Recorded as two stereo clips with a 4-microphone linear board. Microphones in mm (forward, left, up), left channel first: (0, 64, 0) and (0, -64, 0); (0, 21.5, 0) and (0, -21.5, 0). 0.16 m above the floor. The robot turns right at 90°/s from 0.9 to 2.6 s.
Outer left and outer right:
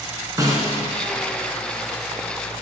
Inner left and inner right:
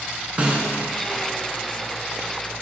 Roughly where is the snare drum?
Right.